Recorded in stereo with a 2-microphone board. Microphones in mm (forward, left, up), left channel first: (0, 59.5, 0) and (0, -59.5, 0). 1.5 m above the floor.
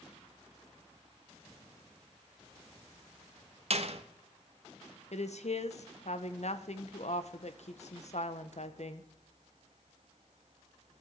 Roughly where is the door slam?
Right.